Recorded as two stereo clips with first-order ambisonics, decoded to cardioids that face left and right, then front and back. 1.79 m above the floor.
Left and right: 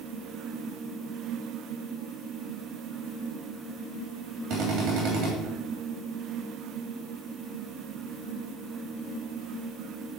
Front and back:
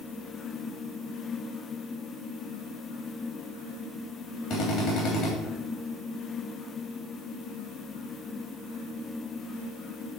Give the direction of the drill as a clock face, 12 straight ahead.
1 o'clock.